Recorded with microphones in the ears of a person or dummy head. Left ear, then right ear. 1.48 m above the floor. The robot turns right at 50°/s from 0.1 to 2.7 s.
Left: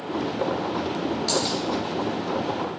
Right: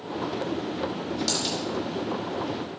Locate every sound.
1.3 s a dropped coin: 65° right (ahead or behind), 3.5 m; by 1.6 s 60° right (ahead or behind), 3.5 m